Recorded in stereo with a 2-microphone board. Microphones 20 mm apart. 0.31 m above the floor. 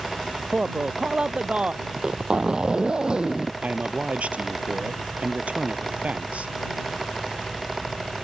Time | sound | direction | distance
0.5 | a man speaking | 45° right (ahead or behind) | ?
1.8 | a zipper | 35° right (ahead or behind) | ?
3.6 | a man speaking | 80° right | ?